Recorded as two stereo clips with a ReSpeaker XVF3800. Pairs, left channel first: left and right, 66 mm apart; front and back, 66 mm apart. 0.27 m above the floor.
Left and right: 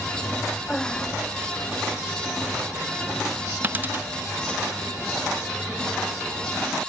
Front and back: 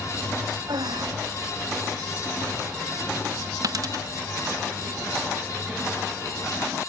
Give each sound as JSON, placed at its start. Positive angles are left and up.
{"t": 0.7, "sound": "breathing", "azimuth_deg": 170}
{"t": 3.6, "sound": "a dropped coin", "azimuth_deg": -155}